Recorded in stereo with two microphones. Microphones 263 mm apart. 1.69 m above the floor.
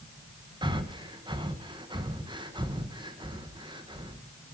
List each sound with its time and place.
0.6 s breathing: 15° right (ahead or behind), 1.0 m